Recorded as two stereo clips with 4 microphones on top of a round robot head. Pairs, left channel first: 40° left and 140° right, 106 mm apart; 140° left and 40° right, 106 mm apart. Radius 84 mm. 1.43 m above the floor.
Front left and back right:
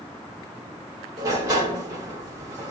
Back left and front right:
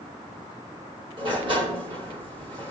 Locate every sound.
1.2 s a sliding door: 85° right, 2.5 m